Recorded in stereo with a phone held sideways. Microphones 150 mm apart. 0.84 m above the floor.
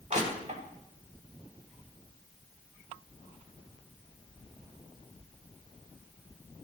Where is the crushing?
50° right (ahead or behind), 1.9 m.